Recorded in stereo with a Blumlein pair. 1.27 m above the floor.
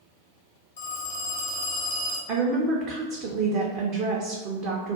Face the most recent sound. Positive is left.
turn(degrees=-40)